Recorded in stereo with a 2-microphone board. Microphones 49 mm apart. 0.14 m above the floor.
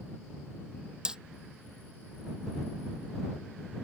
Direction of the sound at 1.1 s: 15° right (ahead or behind).